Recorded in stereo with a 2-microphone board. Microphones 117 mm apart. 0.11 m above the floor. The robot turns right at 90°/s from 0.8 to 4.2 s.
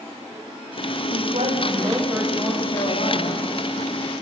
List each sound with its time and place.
1.1 s a woman speaking: 100° right, 6 m; by 3.4 s 110° left, 6 m